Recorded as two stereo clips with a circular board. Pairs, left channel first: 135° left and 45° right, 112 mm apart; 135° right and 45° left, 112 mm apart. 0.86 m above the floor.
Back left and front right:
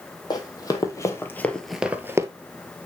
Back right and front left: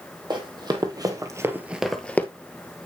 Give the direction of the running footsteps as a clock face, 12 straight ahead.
9 o'clock.